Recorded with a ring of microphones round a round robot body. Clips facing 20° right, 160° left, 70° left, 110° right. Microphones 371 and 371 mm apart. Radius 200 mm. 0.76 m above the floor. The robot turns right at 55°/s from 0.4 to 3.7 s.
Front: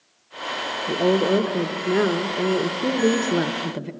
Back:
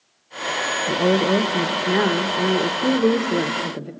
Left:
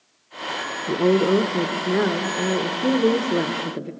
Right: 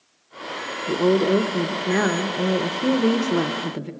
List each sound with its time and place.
0.9 s a woman speaking: 150° left, 1.1 m; by 3.9 s 55° right, 1.1 m